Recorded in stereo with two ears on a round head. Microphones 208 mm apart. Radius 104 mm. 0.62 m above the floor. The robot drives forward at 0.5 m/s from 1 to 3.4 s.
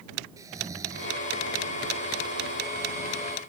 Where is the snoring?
15° right (ahead or behind).